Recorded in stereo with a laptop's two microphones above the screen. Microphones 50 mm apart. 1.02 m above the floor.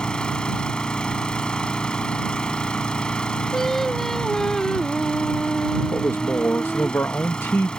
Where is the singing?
10° left (ahead or behind).